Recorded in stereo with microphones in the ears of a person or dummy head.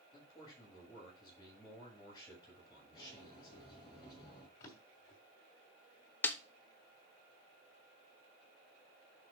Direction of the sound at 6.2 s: 10° left (ahead or behind).